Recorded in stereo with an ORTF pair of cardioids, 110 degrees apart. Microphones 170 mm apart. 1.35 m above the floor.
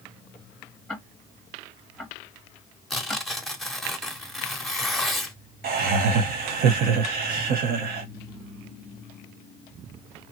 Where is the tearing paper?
Straight ahead, 0.7 m.